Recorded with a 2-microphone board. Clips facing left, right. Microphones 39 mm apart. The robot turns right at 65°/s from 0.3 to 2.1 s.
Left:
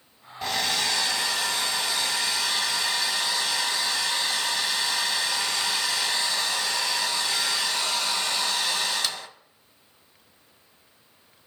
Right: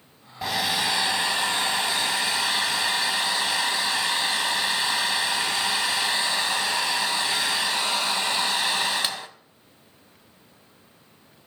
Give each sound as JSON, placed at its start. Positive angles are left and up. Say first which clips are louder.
{"t": 0.4, "sound": "a hair dryer", "louder": "right 1 dB", "azimuth_deg": -170, "distance_m": 0.9}